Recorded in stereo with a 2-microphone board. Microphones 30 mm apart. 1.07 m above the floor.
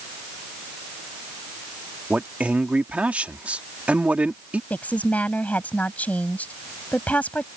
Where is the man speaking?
50° right (ahead or behind).